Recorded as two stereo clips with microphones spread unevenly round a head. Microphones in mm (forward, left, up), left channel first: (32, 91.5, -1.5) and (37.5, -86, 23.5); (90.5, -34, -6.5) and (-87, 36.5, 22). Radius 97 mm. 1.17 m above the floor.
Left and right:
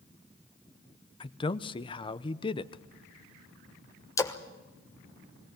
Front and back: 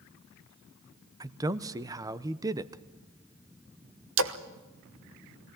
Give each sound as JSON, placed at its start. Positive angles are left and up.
{"t": 1.2, "sound": "a man speaking", "azimuth_deg": 85, "distance_m": 0.7}
{"t": 4.2, "sound": "a splash", "azimuth_deg": 160, "distance_m": 1.1}